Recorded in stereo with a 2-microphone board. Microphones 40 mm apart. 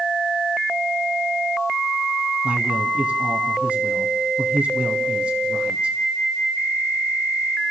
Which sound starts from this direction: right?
A man speaking, at 2.4 s.